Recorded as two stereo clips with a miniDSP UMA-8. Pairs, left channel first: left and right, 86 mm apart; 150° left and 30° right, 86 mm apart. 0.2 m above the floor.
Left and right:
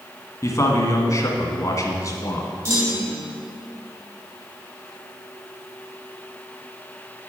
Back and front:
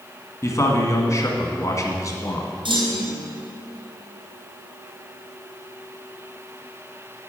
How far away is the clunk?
About 3 m.